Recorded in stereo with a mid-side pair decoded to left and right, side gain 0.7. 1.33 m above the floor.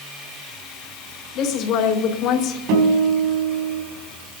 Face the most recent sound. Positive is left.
turn(degrees=-70)